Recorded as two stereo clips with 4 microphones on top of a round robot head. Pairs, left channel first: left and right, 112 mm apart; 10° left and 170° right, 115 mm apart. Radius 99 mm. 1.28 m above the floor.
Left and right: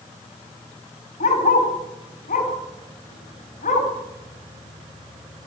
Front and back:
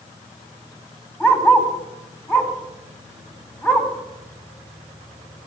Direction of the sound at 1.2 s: 75° left.